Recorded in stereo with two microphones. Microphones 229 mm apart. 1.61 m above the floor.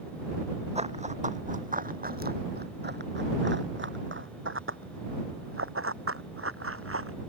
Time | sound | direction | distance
0.8 | running footsteps | 30° right (ahead or behind) | ?